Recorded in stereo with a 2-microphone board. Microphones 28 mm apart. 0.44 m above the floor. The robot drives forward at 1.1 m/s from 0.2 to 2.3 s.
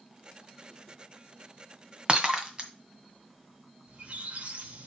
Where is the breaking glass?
30° right (ahead or behind), 1.3 m; by 2.7 s 25° right (ahead or behind), 1.5 m.